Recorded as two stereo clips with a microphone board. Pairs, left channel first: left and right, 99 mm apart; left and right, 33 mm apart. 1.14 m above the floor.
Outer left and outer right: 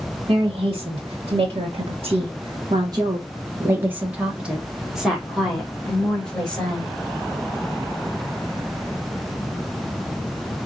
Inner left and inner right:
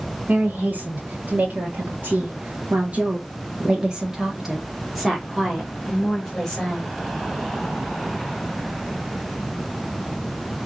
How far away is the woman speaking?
About 1.5 m.